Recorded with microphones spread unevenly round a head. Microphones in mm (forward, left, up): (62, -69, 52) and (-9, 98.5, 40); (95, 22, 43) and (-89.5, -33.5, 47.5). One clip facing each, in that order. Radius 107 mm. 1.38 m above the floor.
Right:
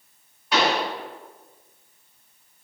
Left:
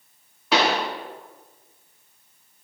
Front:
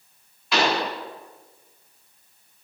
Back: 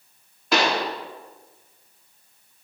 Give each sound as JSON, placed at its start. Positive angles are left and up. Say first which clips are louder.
{"t": 0.5, "sound": "a pop", "louder": "left 1 dB, back 1 dB", "azimuth_deg": 145, "distance_m": 1.6}